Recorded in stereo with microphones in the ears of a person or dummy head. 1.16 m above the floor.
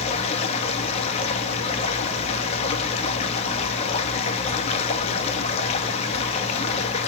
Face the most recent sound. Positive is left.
turn(degrees=40)  # may be behind; listen again after turning